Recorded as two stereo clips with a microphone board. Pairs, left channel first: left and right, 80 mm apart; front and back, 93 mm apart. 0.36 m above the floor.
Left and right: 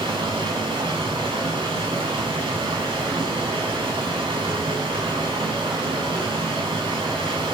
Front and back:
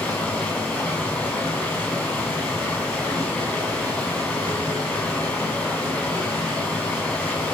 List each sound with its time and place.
0.0 s running water: 75° right, 5 m